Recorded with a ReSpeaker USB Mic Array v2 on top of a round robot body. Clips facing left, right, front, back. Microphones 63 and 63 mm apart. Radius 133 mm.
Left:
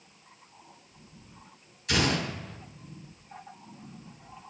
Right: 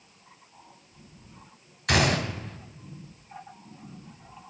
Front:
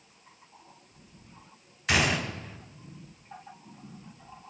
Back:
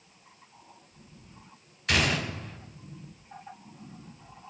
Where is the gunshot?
85° right, 3 m.